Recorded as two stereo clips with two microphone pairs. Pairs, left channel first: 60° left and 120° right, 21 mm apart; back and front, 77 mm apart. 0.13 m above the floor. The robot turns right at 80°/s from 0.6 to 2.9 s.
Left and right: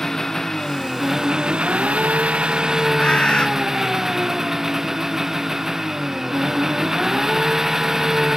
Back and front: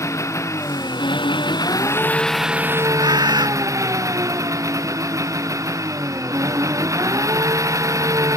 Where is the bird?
20° left.